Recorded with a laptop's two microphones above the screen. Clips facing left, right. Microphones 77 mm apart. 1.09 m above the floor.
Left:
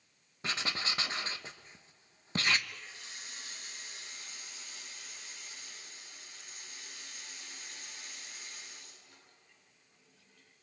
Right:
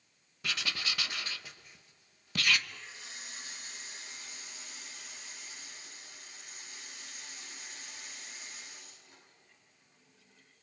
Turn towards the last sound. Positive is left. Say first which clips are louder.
# even
turn(degrees=-20)  # may be behind; listen again after turning